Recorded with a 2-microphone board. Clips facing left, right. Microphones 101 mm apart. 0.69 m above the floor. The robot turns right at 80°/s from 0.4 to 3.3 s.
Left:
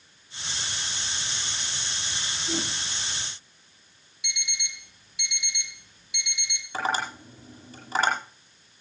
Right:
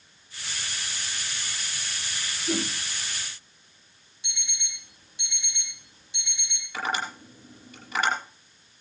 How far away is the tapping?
About 9.5 m.